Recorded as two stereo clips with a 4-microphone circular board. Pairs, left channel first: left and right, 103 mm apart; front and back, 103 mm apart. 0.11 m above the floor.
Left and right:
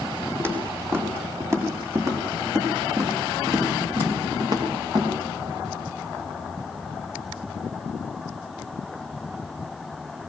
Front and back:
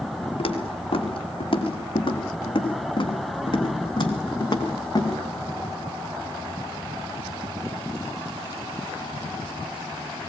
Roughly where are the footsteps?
Ahead right.